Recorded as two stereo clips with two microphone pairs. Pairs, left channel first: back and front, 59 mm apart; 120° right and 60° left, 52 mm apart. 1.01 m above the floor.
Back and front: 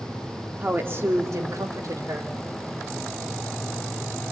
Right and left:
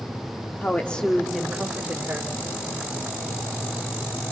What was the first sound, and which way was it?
A woman speaking, 60° right.